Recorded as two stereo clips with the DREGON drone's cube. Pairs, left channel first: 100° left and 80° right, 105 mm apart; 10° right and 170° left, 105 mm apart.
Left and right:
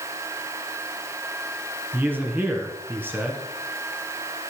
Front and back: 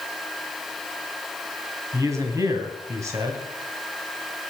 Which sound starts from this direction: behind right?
A man speaking, at 1.9 s.